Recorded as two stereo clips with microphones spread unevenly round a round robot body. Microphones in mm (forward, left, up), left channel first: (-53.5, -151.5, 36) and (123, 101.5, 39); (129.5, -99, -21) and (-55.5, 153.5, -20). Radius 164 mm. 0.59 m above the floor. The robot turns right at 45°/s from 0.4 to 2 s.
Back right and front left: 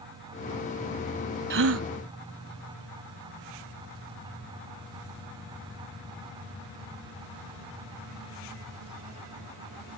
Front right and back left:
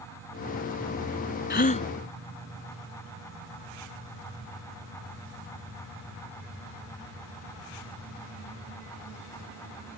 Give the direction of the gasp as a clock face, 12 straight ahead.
12 o'clock.